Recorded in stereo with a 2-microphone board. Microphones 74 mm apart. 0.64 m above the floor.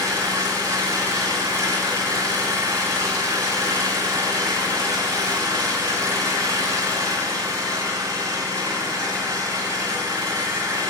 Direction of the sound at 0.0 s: 40° right (ahead or behind).